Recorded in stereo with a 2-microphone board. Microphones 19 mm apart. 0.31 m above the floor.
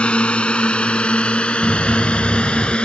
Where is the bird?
25° right (ahead or behind).